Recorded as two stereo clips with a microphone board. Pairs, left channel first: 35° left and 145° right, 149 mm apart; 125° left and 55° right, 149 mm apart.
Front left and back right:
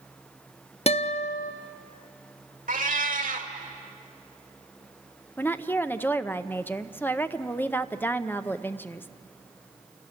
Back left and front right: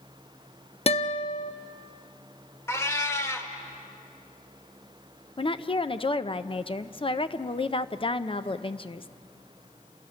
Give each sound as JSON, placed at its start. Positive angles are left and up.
{"t": 0.9, "sound": "a guitar", "azimuth_deg": 80, "distance_m": 0.7}
{"t": 2.7, "sound": "a cat meowing", "azimuth_deg": -165, "distance_m": 1.3}
{"t": 5.4, "sound": "a woman speaking", "azimuth_deg": 105, "distance_m": 0.6}